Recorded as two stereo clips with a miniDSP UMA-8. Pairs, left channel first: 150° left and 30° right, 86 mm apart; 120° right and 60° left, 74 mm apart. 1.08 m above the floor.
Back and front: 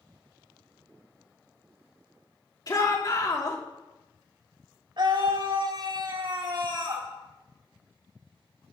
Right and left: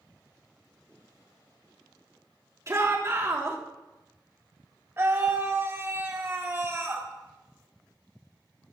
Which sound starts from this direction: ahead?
A scream, at 5.0 s.